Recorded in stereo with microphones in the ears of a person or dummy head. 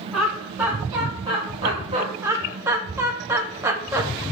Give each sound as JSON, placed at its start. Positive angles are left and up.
{"t": 0.1, "sound": "laughter", "side_deg": -5, "distance_m": 1.8}
{"t": 2.2, "sound": "laughter", "side_deg": -15, "distance_m": 0.5}